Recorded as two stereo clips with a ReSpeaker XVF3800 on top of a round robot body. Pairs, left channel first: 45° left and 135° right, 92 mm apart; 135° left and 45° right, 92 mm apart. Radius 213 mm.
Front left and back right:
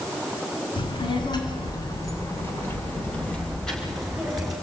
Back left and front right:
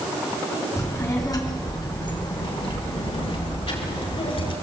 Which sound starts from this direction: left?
A child speaking, at 0.8 s.